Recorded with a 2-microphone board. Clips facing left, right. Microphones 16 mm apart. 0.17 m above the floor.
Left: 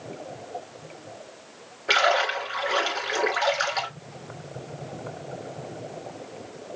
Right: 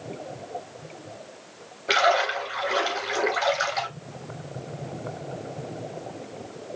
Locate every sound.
1.9 s a splash: 15° left (ahead or behind), 1.9 m